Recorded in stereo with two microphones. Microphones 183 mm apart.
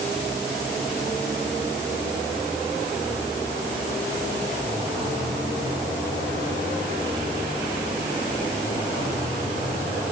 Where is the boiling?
I don't hear boiling.